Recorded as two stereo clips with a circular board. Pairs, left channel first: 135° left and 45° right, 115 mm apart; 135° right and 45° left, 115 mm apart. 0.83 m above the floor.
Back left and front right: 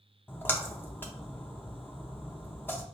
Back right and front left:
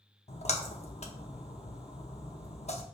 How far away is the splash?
About 0.7 m.